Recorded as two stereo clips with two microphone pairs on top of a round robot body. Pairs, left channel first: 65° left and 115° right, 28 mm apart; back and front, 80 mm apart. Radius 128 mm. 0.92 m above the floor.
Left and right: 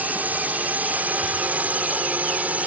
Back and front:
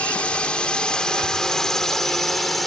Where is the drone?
105° right; by 2.7 s 90° right.